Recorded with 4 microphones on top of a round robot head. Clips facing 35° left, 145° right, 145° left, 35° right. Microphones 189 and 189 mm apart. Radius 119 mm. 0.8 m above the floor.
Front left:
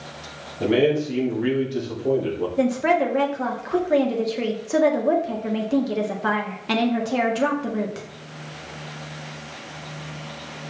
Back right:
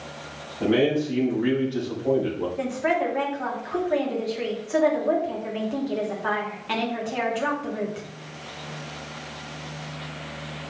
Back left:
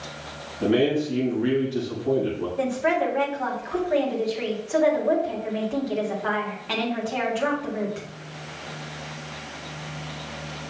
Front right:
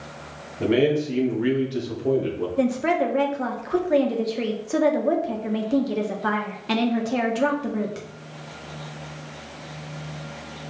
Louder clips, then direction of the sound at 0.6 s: Front left 2 dB, front right 1 dB; 35° right.